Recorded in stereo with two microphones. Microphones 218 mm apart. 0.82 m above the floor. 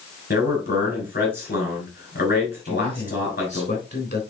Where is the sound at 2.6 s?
50° left (ahead or behind), 3.5 m.